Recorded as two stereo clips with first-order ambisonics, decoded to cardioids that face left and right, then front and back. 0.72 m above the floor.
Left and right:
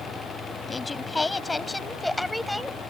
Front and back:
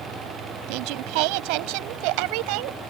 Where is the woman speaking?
170° left; by 2.8 s 175° right.